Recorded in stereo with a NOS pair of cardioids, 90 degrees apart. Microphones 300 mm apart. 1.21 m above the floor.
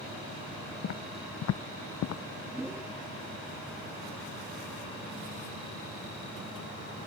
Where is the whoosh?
10° right.